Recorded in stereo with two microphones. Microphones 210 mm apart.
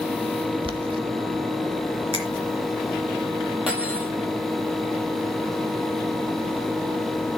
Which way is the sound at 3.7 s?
5° right (ahead or behind).